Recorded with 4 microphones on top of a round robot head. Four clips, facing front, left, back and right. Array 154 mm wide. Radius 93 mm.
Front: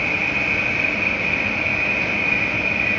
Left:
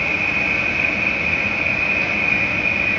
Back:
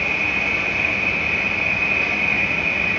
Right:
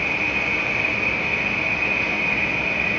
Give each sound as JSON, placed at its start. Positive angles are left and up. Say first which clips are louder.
{"t": 0.0, "sound": "an insect", "louder": "left 2 dB, even", "azimuth_deg": 55, "distance_m": 1.9}